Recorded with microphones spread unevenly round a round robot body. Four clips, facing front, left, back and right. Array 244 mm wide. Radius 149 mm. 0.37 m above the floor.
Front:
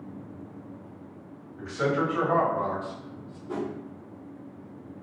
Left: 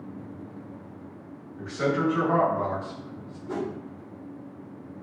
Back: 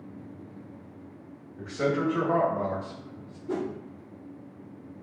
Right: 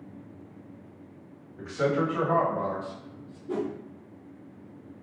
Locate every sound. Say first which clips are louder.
1.6 s a man speaking: even, even; 120° right, 1.9 m; by 3.4 s 165° right, 1.2 m
3.5 s a whoosh: right 1 dB, back 1 dB; 165° right, 0.6 m